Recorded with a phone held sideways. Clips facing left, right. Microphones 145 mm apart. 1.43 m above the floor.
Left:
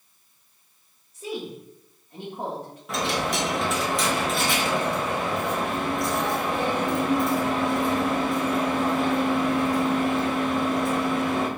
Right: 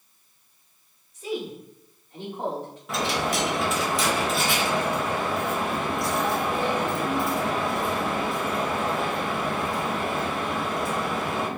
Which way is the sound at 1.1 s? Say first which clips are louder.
Right 2 dB; 40° left (ahead or behind).